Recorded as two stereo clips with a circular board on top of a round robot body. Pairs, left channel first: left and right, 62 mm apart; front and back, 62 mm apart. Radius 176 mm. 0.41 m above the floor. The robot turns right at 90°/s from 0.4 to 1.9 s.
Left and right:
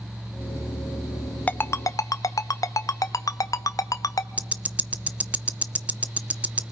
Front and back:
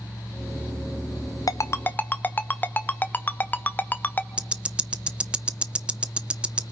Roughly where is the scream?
No scream in this recording.